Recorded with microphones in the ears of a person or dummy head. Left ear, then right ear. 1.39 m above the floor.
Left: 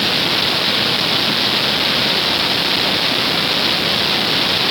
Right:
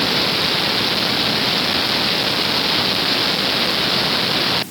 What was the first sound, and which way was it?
Only background noise.